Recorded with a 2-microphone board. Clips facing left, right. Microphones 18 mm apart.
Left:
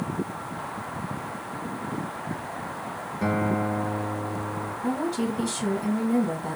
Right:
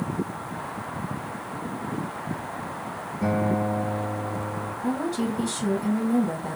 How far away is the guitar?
About 0.8 m.